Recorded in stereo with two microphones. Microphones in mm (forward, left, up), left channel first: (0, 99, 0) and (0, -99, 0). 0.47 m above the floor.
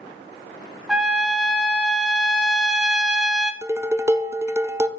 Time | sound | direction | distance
0.9 | a trumpet | 5° right (ahead or behind) | 1.1 m
3.6 | dishes clattering | 15° right (ahead or behind) | 0.6 m